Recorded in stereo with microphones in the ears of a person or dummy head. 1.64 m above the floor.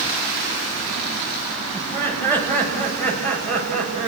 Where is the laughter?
15° left (ahead or behind), 9 m; by 4.1 s 5° left (ahead or behind), 9 m.